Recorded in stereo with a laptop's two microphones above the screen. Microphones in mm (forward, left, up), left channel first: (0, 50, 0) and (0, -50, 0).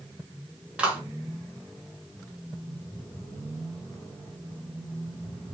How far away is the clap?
About 3 m.